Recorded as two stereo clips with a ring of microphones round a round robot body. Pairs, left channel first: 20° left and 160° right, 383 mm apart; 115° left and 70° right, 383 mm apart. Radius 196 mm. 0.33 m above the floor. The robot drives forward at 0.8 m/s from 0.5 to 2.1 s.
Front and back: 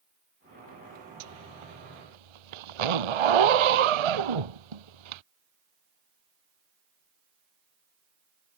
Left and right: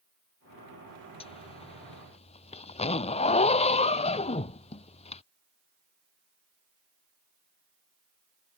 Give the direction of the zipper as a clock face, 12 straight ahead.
6 o'clock.